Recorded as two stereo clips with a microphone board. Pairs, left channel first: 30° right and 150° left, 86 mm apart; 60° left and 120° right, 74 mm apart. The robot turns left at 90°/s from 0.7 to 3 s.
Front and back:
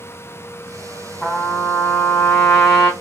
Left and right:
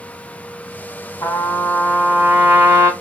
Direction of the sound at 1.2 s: 60° left.